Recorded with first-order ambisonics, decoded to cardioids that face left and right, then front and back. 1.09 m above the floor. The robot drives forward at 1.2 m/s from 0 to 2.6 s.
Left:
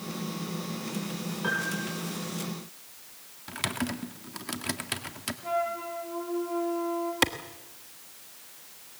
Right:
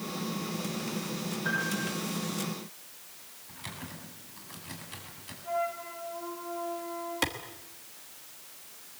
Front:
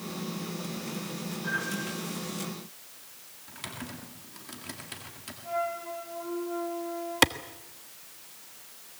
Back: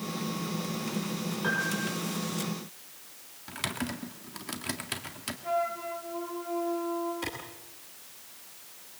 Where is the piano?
125° left, 7.5 m; by 1.9 s 130° left, 7.5 m.